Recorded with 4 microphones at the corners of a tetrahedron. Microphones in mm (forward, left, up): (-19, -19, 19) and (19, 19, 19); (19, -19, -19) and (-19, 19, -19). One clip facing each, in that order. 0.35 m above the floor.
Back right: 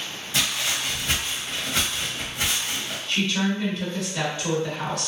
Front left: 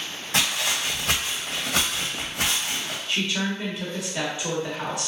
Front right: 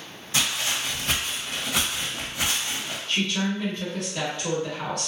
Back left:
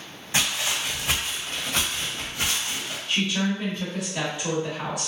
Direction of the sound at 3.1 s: 80° left.